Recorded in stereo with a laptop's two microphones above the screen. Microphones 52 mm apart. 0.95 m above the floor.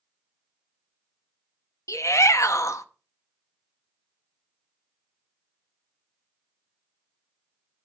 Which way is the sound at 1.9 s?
65° left (ahead or behind).